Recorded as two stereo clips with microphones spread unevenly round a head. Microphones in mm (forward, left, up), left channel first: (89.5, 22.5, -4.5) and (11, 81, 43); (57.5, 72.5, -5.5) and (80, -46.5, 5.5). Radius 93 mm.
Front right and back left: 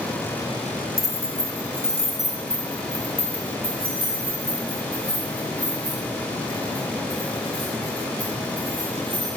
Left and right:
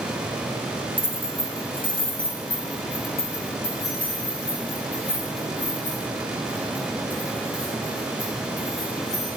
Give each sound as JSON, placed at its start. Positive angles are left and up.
{"t": 1.0, "sound": "keys jangling", "azimuth_deg": 25, "distance_m": 1.2}